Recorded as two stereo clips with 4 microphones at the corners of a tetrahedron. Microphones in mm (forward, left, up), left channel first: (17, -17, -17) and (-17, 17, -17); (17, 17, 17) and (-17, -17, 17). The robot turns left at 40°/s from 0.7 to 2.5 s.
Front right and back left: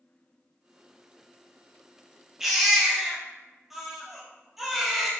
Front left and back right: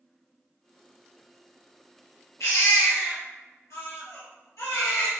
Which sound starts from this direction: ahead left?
A baby crying, at 2.4 s.